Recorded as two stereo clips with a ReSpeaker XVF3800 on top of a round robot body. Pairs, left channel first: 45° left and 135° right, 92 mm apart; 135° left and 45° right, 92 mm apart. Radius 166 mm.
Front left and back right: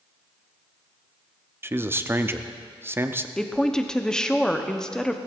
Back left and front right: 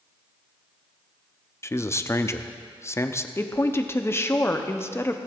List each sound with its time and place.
1.6 s a man speaking: 175° left, 0.9 m
3.4 s a woman speaking: 120° left, 1.2 m